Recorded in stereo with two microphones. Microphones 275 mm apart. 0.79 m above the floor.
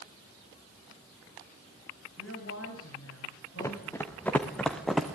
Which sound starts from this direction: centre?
Running footsteps, at 3.6 s.